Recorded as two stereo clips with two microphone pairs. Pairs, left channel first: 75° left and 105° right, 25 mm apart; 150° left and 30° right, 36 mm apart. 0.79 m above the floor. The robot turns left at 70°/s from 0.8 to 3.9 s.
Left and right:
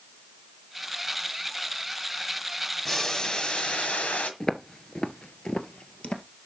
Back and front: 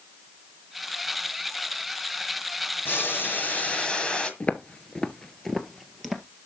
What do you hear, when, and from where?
2.9 s boiling: 165° left, 1.6 m; by 4.3 s 90° left, 1.6 m
4.4 s footsteps: 140° left, 0.9 m; by 6.2 s 55° left, 1.3 m